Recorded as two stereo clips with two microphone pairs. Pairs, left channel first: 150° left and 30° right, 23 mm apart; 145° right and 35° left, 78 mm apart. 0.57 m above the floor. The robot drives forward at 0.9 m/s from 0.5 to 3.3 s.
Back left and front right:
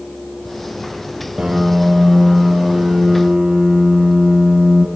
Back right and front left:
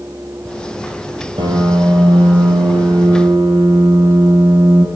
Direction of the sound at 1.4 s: 30° left.